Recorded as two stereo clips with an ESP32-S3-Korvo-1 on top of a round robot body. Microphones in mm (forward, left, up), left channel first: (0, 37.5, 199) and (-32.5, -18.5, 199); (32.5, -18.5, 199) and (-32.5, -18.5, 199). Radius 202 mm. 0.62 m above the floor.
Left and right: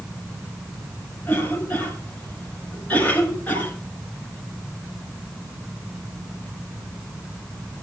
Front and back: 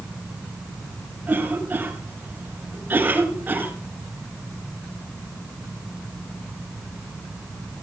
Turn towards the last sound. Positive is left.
turn(degrees=120)